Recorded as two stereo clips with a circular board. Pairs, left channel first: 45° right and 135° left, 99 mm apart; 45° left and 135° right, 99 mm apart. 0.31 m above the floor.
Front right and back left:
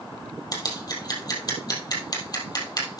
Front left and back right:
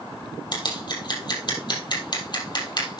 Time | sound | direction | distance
0.5 | scissors | 5° left | 3.5 m